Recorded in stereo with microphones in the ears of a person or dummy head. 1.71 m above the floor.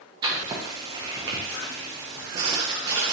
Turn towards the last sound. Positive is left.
turn(degrees=-25)  # may be behind; listen again after turning